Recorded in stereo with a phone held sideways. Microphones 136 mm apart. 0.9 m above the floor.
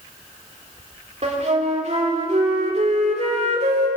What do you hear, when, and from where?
1.2 s a flute: 55° right (ahead or behind), 3 m